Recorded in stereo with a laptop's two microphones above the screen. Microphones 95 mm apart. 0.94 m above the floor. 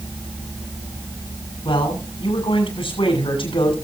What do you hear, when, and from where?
1.6 s a man speaking: 80° left, 6.5 m